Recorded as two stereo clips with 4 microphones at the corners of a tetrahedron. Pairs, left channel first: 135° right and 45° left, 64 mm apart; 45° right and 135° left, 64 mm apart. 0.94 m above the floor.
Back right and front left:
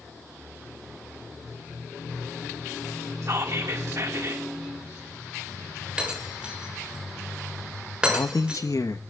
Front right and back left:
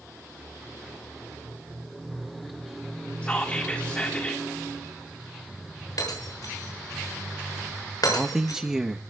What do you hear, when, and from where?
3.2 s whispering: 20° left, 1.7 m
6.0 s breaking glass: 30° right, 7 m
8.1 s a man speaking: 150° right, 1.1 m